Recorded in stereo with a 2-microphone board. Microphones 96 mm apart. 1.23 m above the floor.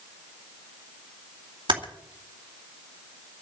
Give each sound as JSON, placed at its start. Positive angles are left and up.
{"t": 1.7, "sound": "typing on a keyboard", "side_deg": -60, "distance_m": 2.5}